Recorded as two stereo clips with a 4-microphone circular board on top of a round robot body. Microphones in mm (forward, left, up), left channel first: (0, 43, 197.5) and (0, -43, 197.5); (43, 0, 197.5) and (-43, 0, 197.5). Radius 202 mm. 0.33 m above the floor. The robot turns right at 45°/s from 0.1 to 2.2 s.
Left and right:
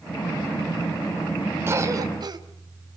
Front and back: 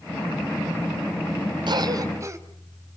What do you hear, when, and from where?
1.7 s a cough: 150° right, 2.5 m; by 2.4 s 125° right, 2.5 m